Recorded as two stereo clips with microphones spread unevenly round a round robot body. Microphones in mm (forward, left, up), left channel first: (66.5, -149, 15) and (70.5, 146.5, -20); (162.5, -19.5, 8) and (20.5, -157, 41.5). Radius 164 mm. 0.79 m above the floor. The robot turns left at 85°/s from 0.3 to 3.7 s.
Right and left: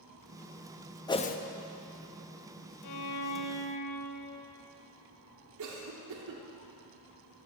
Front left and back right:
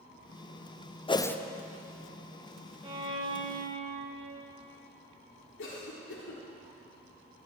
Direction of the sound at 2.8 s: 70° right.